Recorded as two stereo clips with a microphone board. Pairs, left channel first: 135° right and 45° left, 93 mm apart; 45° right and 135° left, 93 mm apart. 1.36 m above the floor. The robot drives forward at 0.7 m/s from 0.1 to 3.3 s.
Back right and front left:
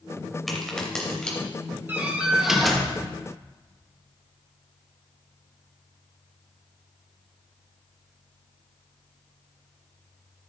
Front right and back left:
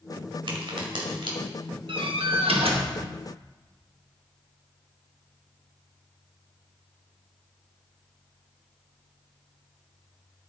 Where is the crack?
140° left, 1.9 m; by 1.4 s 150° left, 2.5 m.